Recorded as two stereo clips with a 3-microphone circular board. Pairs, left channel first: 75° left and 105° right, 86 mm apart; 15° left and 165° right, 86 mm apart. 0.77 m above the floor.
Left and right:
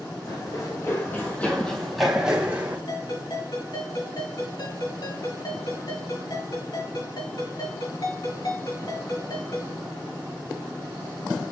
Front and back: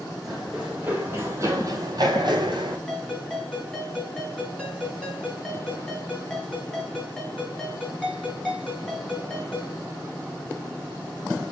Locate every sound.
0.2 s running footsteps: 105° left, 2 m; by 2.8 s 175° right, 2 m
2.9 s a ringtone: 95° left, 3.5 m